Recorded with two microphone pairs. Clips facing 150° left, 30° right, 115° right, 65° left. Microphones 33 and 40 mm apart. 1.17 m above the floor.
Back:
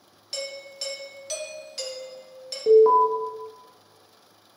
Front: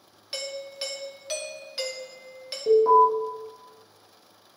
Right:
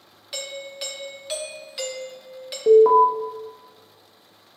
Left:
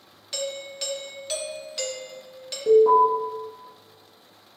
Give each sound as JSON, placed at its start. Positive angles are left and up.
{"t": 0.3, "sound": "a doorbell", "azimuth_deg": -65, "distance_m": 0.9}
{"t": 2.7, "sound": "an alarm", "azimuth_deg": -145, "distance_m": 1.1}